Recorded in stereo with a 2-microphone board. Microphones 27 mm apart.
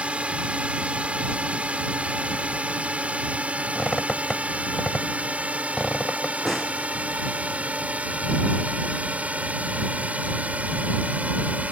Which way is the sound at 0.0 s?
55° right (ahead or behind).